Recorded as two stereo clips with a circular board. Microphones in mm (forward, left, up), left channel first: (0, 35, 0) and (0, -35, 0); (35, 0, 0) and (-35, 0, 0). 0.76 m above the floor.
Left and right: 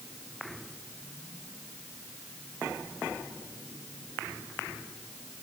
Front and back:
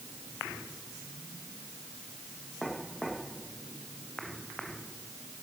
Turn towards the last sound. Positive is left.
No sound to turn to.